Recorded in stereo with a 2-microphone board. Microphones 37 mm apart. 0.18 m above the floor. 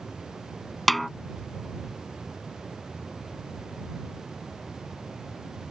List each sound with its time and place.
0.9 s a snare drum: 5° left (ahead or behind)